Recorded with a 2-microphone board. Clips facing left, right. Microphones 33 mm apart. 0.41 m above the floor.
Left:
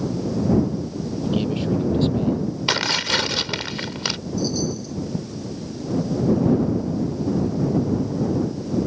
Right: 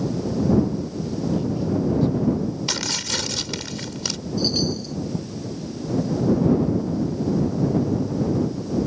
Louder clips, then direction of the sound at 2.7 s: Left 6 dB; 35° left (ahead or behind).